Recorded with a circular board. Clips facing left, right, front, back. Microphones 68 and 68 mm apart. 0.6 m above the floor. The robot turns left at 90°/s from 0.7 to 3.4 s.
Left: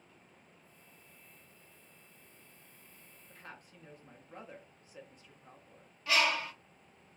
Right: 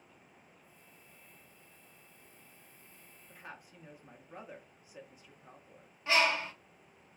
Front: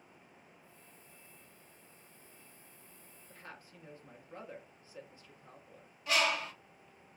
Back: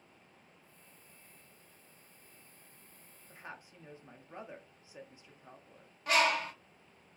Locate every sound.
3.3 s a woman speaking: 150° right, 0.5 m; by 5.9 s 160° right, 0.5 m
6.1 s a bird: 155° right, 0.7 m